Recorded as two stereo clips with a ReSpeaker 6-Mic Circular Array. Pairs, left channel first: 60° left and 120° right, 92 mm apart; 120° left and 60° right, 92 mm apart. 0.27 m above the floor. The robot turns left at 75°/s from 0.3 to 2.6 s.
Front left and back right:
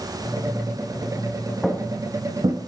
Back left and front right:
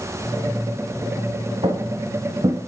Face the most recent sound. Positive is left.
turn(degrees=-105)